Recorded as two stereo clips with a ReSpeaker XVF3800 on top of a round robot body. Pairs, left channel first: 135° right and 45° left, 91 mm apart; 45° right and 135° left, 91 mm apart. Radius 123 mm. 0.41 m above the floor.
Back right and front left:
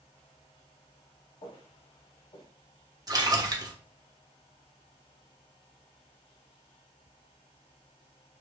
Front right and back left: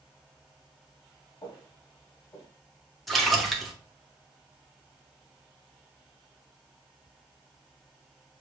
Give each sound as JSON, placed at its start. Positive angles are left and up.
{"t": 1.4, "sound": "footsteps", "azimuth_deg": -95, "distance_m": 3.0}
{"t": 3.1, "sound": "a splash", "azimuth_deg": 45, "distance_m": 1.2}